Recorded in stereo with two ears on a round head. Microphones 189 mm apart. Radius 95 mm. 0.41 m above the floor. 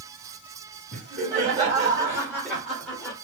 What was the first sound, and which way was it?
Laughter, 35° right (ahead or behind).